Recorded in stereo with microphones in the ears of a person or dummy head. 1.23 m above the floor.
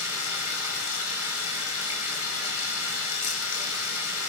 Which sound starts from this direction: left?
Running water, at 0.0 s.